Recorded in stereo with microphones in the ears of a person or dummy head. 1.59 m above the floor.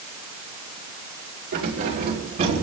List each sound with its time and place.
1.5 s keys jangling: 60° right (ahead or behind), 2.5 m; by 2.6 s 45° right (ahead or behind), 3 m